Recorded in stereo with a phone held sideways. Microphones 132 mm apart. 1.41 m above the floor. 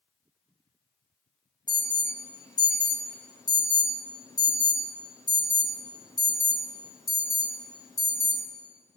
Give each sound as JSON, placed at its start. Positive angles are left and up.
{"t": 1.7, "sound": "an alarm", "side_deg": 30, "distance_m": 0.9}